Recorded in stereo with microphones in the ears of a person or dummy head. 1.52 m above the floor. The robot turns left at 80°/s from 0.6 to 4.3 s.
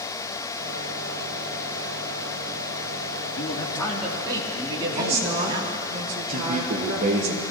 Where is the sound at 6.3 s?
40° right (ahead or behind), 1.3 m.